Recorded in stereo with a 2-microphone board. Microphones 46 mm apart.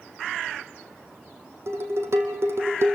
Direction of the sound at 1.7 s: 70° right (ahead or behind).